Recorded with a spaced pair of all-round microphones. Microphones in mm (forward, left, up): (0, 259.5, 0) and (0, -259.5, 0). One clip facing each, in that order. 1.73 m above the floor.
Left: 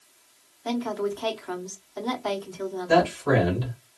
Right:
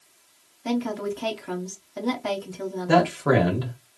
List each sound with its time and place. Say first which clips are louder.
0.7 s a woman speaking: right 1 dB; 45° right (ahead or behind), 0.8 m
2.9 s a man speaking: right 1 dB; 80° right, 1.3 m